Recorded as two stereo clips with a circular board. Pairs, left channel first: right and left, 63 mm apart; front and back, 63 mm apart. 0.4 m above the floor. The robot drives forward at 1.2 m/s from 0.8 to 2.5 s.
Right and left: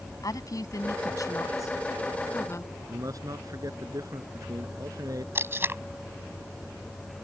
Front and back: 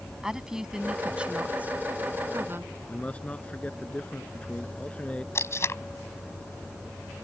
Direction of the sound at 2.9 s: 70° left.